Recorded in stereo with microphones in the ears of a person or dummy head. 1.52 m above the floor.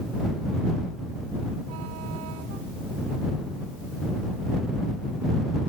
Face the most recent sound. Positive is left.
No sound to turn to.